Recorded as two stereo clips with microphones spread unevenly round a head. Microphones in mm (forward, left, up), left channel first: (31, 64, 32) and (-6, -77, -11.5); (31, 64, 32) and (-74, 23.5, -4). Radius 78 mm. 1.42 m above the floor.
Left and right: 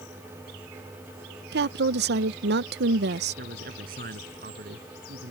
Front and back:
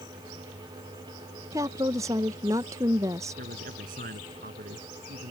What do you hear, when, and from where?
1.5 s a woman speaking: 85° right
3.4 s a man speaking: 140° right